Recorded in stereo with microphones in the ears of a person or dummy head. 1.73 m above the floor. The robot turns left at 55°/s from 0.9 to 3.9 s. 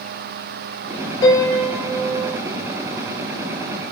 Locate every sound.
1.2 s a piano: 25° left, 2.5 m; by 2.4 s 40° right, 2.5 m